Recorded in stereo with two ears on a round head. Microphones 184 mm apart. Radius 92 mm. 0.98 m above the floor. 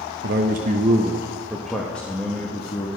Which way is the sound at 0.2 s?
60° right (ahead or behind).